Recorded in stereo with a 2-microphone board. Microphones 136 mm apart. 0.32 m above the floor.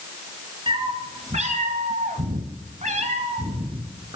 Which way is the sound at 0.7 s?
40° right (ahead or behind).